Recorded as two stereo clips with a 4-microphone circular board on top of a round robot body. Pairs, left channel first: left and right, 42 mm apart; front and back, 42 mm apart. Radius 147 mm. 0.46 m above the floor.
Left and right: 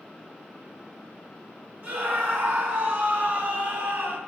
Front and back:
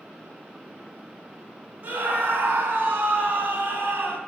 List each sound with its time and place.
1.8 s a scream: 130° right, 5.5 m; by 4.2 s 140° right, 7 m